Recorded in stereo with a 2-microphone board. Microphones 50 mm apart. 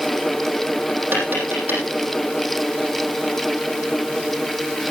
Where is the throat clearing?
No throat clearing in this recording.